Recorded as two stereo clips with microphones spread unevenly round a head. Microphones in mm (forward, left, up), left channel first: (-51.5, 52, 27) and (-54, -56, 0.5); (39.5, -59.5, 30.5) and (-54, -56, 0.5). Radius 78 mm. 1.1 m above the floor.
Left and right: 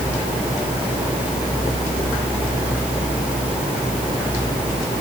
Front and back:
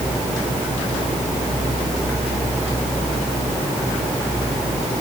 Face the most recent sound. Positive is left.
No sound to turn to.